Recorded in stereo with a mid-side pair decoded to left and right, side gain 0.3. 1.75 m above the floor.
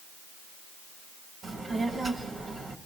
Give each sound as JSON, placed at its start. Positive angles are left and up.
{"t": 1.4, "sound": "a child speaking", "azimuth_deg": -60, "distance_m": 2.0}